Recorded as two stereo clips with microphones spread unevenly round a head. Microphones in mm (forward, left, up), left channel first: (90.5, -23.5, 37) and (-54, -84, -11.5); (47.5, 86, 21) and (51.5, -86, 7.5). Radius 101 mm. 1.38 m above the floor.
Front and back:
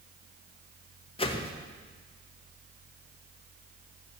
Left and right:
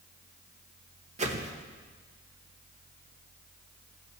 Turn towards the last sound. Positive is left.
turn(degrees=-35)